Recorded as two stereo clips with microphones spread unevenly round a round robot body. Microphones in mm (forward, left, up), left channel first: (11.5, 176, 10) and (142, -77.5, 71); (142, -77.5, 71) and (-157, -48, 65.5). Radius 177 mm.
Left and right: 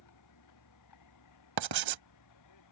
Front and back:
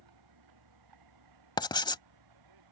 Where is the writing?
80° right.